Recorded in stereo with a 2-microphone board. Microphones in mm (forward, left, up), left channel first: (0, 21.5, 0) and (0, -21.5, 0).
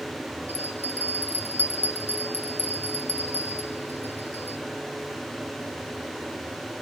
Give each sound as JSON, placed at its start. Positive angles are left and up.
{"t": 0.5, "sound": "a bell", "side_deg": -70, "distance_m": 0.7}